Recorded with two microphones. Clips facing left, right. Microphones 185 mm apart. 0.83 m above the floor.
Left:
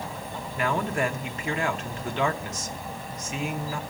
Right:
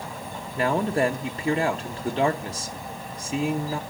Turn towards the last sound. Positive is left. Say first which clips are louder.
# right 4 dB
turn(degrees=-35)  # may be behind; listen again after turning